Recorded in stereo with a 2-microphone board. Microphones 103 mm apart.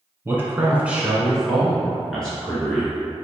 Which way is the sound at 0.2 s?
20° right (ahead or behind).